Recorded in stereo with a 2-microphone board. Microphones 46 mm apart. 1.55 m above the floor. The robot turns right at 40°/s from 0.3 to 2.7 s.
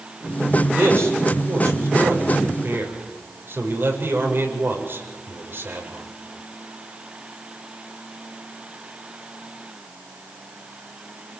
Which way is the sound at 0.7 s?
50° right (ahead or behind).